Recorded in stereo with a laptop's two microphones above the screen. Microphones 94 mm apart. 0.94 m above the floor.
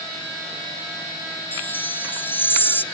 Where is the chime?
20° left (ahead or behind), 0.8 m.